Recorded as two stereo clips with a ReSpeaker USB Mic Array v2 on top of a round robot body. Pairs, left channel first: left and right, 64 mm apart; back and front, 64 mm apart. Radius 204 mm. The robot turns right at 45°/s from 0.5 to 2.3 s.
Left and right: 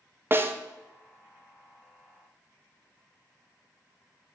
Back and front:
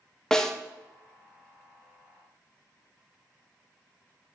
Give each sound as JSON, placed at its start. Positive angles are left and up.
{"t": 0.3, "sound": "a snare drum", "azimuth_deg": -105, "distance_m": 0.9}